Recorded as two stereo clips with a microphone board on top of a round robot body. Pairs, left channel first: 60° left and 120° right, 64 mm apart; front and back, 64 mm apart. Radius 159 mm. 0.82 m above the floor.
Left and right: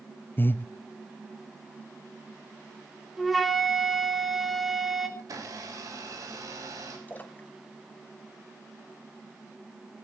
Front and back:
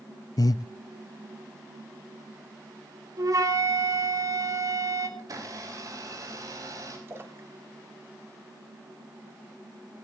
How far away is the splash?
About 1.3 m.